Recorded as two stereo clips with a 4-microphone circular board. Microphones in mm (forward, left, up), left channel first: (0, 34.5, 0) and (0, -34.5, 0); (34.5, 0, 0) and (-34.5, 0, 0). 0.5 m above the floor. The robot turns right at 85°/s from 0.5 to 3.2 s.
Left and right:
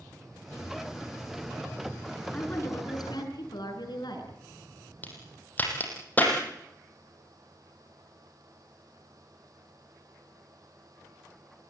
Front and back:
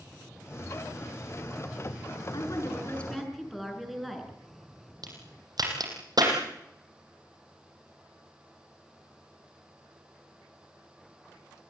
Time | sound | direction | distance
2.3 | a woman speaking | 15° left | 7.5 m
5.0 | a crack | 155° left | 7 m